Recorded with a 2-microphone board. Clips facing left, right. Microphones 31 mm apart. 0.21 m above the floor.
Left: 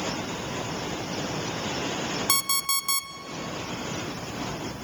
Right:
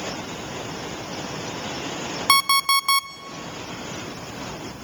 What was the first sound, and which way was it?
An alarm clock, 45° right (ahead or behind).